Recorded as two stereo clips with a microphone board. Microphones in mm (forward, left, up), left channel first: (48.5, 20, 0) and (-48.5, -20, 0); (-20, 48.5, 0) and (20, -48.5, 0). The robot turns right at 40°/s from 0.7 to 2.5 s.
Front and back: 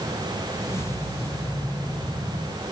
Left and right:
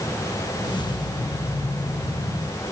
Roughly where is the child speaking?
No child speaking in this recording.